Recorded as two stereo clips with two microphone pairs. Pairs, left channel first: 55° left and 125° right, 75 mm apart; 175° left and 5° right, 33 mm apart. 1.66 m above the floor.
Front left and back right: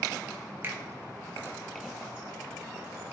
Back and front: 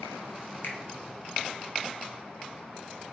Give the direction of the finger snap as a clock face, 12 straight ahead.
6 o'clock.